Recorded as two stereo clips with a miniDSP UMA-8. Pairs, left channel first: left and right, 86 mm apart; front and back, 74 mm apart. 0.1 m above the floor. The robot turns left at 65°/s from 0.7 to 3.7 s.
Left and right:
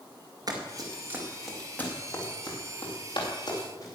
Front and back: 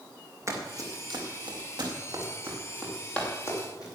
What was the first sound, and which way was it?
Running footsteps, 130° right.